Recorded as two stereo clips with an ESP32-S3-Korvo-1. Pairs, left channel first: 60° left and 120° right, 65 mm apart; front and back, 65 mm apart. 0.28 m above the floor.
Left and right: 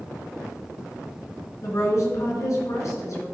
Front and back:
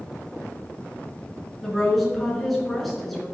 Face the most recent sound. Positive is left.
turn(degrees=90)